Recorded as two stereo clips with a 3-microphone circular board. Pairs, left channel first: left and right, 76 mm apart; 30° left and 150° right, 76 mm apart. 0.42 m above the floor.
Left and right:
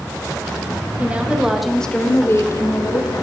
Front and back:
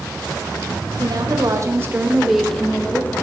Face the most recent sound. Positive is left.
turn(degrees=85)